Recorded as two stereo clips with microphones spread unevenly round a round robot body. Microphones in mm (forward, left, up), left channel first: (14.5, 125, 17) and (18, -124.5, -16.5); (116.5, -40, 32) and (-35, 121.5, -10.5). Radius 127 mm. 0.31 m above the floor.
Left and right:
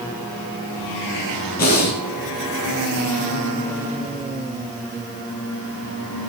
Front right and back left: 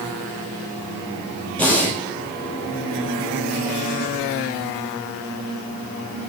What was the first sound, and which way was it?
Breathing, 35° left.